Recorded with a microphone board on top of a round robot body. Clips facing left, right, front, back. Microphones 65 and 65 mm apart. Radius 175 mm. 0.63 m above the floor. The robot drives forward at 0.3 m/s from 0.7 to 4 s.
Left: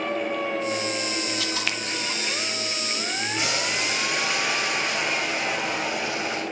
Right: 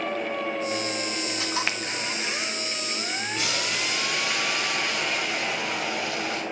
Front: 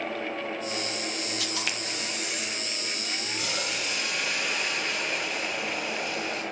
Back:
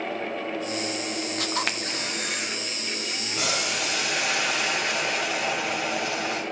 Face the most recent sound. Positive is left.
turn(degrees=160)